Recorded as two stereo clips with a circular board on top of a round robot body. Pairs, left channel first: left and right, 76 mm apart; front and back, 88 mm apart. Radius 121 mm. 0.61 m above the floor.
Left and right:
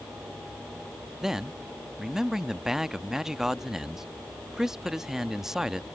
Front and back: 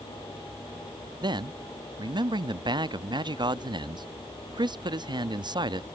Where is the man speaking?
170° right.